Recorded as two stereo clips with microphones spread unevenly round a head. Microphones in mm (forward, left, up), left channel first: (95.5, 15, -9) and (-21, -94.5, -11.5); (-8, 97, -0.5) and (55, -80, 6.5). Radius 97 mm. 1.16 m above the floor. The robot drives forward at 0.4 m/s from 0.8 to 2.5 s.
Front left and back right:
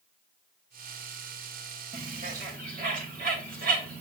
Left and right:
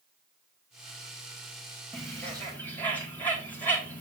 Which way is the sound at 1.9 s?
170° right.